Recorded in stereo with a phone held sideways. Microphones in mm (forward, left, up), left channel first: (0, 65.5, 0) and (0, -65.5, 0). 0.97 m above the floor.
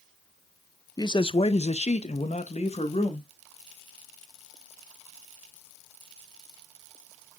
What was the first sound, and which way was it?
A man speaking, 30° left (ahead or behind).